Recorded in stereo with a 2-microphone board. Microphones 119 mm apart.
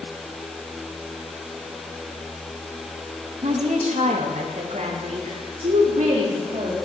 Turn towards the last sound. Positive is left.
turn(degrees=-70)  # may be behind; listen again after turning